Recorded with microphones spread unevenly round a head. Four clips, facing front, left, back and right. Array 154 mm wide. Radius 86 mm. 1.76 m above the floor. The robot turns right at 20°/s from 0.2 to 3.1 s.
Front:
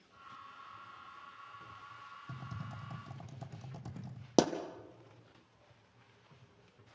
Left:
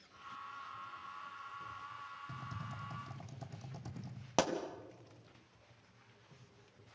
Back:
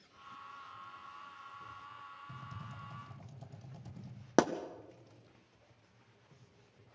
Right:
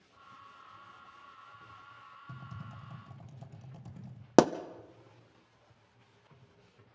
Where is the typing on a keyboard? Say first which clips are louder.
Right 2 dB, front 1 dB; 5° left, 2 m; by 4.3 s 20° left, 2 m.